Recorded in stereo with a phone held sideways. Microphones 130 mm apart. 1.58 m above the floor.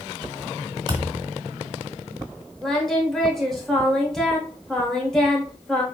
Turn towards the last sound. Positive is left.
turn(degrees=5)  # may be behind; listen again after turning